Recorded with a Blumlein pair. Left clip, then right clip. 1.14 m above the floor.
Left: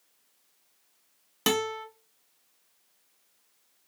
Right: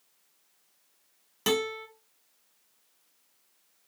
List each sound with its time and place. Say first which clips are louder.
1.5 s a guitar: left 1 dB; 15° left, 1.1 m